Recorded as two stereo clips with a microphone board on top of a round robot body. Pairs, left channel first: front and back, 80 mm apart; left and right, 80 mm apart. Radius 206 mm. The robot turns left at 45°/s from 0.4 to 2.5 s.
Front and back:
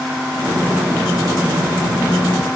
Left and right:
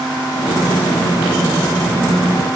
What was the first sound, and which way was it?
Only background noise.